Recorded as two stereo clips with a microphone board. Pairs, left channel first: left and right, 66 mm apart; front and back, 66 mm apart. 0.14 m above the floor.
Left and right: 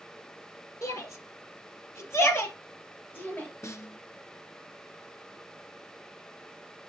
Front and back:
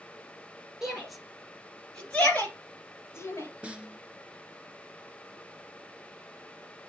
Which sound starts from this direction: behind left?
A snare drum, at 3.6 s.